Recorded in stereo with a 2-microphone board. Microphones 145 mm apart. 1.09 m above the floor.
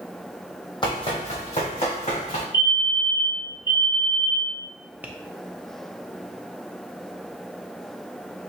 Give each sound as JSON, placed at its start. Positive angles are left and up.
{"t": 0.8, "sound": "running footsteps", "side_deg": 35, "distance_m": 2.0}
{"t": 2.5, "sound": "a fire alarm", "side_deg": 30, "distance_m": 1.3}
{"t": 5.0, "sound": "tapping", "side_deg": -10, "distance_m": 0.6}